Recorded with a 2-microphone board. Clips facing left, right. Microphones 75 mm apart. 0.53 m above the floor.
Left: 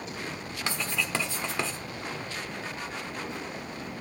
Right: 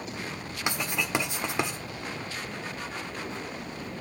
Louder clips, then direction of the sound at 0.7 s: Right 2 dB; 20° right (ahead or behind).